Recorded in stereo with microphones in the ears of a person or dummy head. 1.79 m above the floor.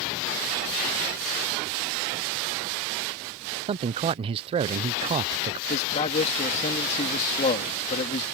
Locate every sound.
3.7 s a man speaking: 30° right (ahead or behind)
5.7 s a man speaking: 35° left (ahead or behind)